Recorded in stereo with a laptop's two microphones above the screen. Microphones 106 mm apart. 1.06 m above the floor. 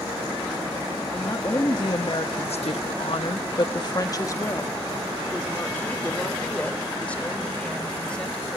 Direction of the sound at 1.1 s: 35° left (ahead or behind).